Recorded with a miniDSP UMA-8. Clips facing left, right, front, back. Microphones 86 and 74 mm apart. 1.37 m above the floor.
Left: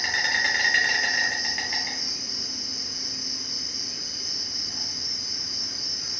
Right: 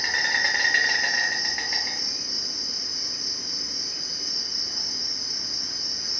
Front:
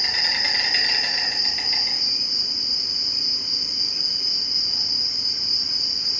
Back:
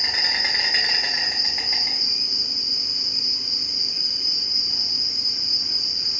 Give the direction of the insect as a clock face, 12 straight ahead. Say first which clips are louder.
Even, back 1 dB; 5 o'clock.